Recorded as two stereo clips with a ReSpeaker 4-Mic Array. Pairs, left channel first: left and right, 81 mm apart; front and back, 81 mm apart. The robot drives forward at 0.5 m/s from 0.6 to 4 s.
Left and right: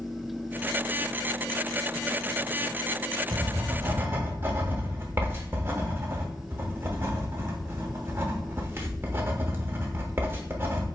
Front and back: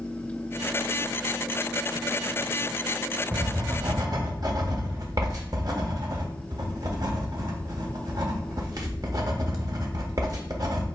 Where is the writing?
135° right, 0.7 m; by 10.8 s 150° right, 1.0 m.